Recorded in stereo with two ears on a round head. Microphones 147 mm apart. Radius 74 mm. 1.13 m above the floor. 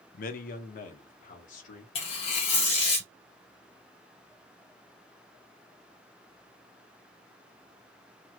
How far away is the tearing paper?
About 1.7 m.